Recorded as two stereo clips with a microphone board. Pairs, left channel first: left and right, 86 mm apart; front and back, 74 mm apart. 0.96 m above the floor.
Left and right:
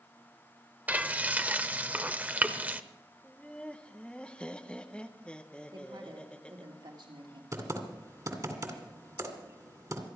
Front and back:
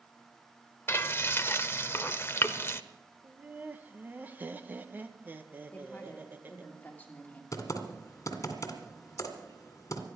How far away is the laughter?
About 0.9 m.